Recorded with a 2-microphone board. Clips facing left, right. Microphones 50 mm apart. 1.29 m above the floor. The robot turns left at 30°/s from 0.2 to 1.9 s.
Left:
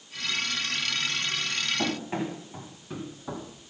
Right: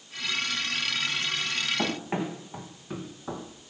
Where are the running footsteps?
30° right (ahead or behind), 3.5 m; by 3.5 s 5° right (ahead or behind), 1.8 m.